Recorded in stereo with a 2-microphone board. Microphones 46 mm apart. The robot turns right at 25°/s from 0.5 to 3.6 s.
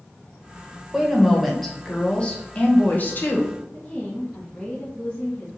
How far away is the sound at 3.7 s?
About 1.0 m.